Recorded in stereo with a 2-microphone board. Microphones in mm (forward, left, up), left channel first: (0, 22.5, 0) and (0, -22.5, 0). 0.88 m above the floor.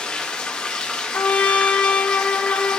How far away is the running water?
About 0.9 m.